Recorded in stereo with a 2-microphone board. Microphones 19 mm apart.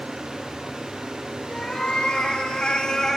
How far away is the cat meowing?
About 1.5 m.